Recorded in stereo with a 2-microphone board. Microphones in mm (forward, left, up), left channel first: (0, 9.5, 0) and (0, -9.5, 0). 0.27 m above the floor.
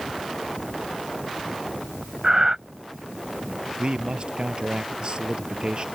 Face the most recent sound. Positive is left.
turn(degrees=-50)  # may be behind; listen again after turning